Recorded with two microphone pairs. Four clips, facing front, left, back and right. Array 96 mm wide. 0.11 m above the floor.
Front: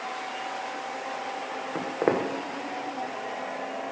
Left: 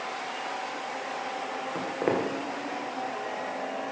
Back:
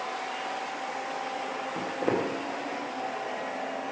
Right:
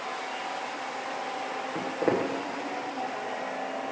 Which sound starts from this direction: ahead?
Footsteps, at 1.8 s.